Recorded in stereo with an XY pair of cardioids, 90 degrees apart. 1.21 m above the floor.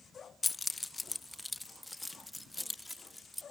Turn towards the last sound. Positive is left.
turn(degrees=5)